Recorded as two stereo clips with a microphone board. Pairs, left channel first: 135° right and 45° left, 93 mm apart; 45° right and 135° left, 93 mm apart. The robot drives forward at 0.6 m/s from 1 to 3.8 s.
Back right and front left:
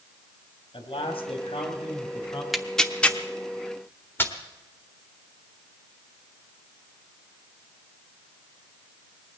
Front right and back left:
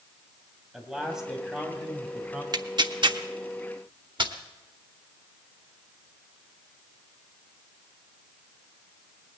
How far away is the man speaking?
About 3 m.